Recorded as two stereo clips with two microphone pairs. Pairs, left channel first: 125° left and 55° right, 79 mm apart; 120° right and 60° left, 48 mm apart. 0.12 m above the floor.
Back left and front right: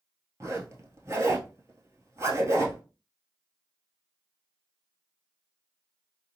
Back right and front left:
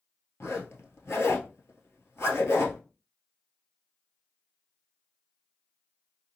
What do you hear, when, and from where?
0.4 s a zipper: 105° right, 1.2 m